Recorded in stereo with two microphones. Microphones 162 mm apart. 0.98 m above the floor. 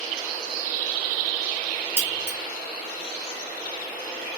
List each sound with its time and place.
2.0 s keys jangling: 75° right (ahead or behind), 2 m